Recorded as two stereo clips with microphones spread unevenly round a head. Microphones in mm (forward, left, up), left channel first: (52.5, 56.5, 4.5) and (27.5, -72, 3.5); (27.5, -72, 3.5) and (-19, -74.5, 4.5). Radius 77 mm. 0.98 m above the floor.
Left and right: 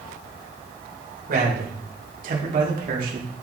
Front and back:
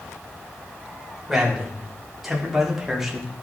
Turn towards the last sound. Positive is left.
turn(degrees=-95)